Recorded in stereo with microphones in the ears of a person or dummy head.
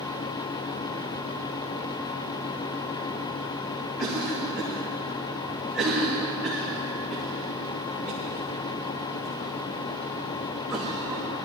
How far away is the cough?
About 1.9 m.